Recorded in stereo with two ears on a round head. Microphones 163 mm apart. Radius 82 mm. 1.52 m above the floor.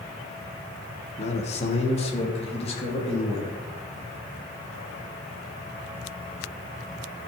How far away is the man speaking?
About 1.5 m.